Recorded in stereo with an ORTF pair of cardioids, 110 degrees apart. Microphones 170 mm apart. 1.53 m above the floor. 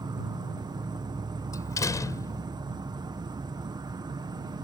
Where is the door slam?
20° left.